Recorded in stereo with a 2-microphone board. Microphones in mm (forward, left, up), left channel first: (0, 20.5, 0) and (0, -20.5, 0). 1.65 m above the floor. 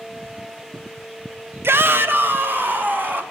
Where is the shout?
60° right (ahead or behind), 0.7 m; by 3.2 s 45° right (ahead or behind), 2.5 m.